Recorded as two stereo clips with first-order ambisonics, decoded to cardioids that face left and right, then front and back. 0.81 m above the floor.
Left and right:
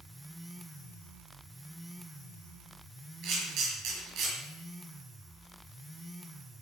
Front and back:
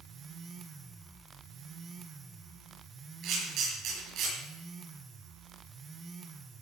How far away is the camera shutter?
About 6 m.